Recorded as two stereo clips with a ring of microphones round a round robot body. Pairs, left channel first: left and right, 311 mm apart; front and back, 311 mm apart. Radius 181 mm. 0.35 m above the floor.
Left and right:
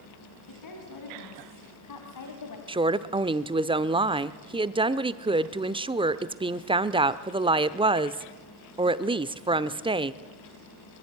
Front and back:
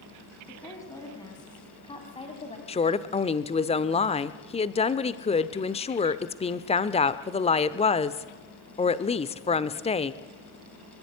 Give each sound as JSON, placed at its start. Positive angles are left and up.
{"t": 0.5, "sound": "a woman speaking", "azimuth_deg": 80, "distance_m": 4.0}
{"t": 2.7, "sound": "a woman speaking", "azimuth_deg": -40, "distance_m": 0.9}